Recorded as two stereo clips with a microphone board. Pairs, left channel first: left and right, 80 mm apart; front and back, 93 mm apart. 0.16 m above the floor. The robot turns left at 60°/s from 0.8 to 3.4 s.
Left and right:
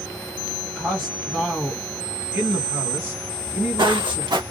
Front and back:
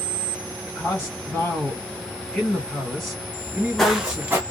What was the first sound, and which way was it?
A man speaking, 40° left.